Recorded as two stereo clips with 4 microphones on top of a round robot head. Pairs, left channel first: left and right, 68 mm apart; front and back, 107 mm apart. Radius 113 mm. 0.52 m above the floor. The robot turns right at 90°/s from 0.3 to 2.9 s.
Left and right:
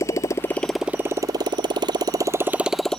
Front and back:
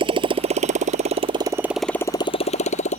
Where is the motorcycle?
140° left; by 3.0 s 5° left.